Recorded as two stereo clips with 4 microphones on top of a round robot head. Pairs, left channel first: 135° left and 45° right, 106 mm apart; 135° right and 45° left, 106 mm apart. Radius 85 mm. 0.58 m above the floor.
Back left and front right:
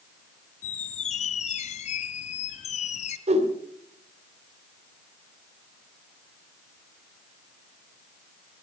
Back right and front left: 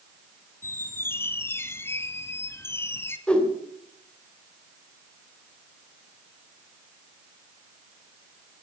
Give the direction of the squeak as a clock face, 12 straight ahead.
7 o'clock.